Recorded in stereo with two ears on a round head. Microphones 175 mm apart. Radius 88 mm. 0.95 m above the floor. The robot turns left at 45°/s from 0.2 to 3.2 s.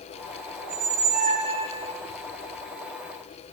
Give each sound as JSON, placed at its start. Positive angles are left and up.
{"t": 0.6, "sound": "a squeak", "azimuth_deg": -105, "distance_m": 3.0}